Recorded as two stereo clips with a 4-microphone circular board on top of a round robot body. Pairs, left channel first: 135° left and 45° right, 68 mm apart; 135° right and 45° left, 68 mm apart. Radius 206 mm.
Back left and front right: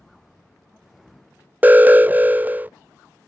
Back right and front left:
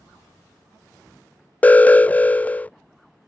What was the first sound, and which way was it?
An alarm, 85° right.